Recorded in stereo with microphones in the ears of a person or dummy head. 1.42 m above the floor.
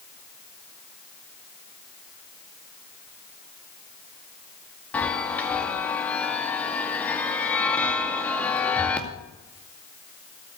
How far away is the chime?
About 2.0 m.